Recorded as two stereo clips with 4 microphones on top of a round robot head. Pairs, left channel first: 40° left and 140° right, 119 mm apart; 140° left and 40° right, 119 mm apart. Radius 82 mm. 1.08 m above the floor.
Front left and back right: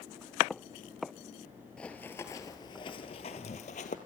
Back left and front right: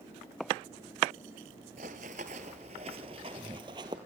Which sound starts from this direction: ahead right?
Running footsteps, at 1.8 s.